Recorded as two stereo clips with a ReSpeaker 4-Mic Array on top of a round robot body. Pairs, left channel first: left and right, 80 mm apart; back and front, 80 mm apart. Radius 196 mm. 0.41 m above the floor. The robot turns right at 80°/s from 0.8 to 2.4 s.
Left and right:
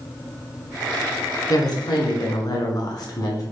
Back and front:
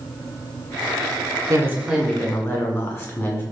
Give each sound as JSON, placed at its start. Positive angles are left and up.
{"t": 1.5, "sound": "a woman speaking", "azimuth_deg": 45, "distance_m": 1.8}